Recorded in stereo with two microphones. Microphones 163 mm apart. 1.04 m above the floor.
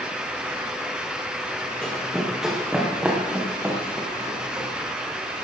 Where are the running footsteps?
5° left (ahead or behind), 4 m; by 4.7 s 20° right (ahead or behind), 5.5 m.